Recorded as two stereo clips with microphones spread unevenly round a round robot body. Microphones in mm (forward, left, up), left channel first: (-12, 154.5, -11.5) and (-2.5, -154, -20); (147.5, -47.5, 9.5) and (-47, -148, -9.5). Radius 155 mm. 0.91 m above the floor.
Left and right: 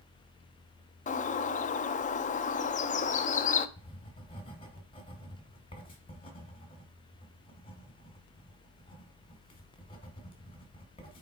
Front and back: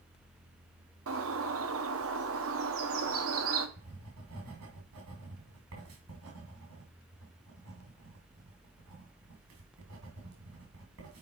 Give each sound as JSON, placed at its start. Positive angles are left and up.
{"t": 1.1, "sound": "a bird", "azimuth_deg": 160, "distance_m": 0.5}
{"t": 3.8, "sound": "writing", "azimuth_deg": 165, "distance_m": 2.0}